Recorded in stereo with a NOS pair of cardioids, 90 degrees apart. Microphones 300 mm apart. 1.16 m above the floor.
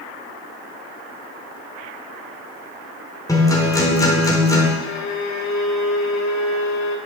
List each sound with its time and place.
3.3 s a guitar: 10° left, 4 m
4.8 s a violin: 65° left, 2.5 m